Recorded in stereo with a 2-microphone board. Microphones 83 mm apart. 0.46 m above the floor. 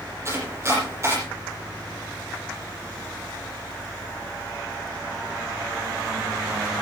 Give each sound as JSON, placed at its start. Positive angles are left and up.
{"t": 0.2, "sound": "chopping", "side_deg": -35, "distance_m": 8.5}